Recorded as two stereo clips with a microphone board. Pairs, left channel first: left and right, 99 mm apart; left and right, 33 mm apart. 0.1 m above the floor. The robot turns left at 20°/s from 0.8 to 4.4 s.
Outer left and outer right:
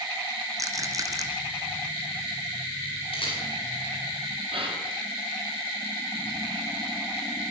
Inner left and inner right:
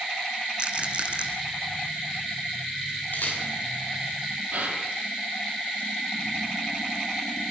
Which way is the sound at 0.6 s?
35° right (ahead or behind).